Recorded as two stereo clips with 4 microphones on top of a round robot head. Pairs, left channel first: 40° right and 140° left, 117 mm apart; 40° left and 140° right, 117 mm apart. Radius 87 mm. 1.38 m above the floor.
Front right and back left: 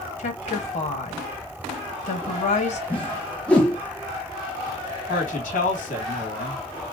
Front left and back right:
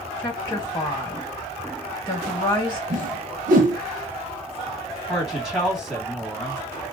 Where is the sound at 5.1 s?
50° right, 2.5 m.